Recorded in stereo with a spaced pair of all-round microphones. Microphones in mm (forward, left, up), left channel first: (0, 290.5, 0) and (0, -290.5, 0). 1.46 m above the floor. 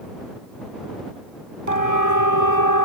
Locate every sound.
1.7 s a siren: 85° right; by 2.9 s 80° right